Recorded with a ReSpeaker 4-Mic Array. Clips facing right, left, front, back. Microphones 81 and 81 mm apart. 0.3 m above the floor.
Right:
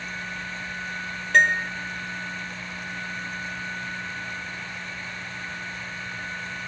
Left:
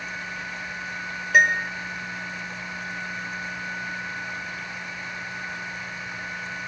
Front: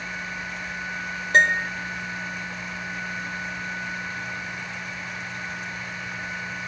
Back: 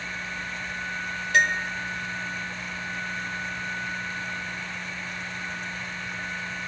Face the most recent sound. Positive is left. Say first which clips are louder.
# even, front 4 dB
turn(degrees=15)